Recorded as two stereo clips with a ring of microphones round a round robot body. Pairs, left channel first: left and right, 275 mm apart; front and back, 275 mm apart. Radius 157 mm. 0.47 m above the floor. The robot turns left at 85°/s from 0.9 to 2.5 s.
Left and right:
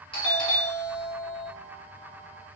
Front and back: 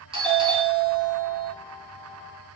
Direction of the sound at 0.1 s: 135° left.